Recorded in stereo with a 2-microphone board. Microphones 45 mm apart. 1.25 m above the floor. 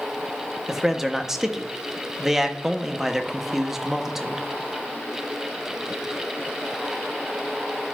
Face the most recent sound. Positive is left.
turn(degrees=-10)  # may be behind; listen again after turning